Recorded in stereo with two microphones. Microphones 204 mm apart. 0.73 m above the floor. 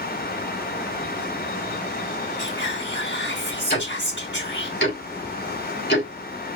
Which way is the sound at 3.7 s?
55° left (ahead or behind).